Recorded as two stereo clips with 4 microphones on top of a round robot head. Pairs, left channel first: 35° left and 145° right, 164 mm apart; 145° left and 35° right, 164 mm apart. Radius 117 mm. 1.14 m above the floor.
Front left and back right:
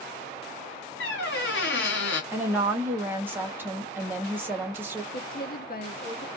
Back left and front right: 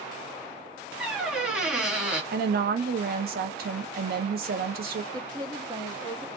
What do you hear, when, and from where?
1.0 s a squeak: 50° left, 0.7 m
2.3 s a woman speaking: 65° right, 0.9 m
5.1 s a woman speaking: 25° left, 0.9 m